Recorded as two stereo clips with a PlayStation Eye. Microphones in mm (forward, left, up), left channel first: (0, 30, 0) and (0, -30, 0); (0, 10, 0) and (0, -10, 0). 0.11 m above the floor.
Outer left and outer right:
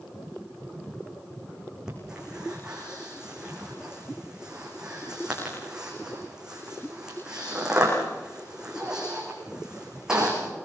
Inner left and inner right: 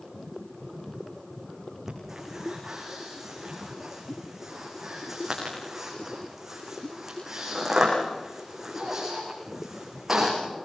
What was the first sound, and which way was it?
Breathing, 10° right (ahead or behind).